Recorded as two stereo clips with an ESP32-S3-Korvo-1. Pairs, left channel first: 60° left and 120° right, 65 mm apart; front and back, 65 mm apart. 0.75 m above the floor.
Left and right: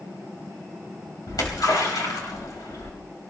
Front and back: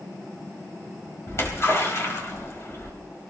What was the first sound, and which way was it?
A splash, 45° left.